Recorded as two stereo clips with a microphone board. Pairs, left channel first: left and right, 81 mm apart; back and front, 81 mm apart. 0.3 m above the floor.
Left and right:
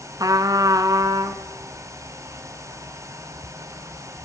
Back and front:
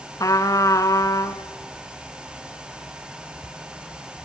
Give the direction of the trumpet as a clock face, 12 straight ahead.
4 o'clock.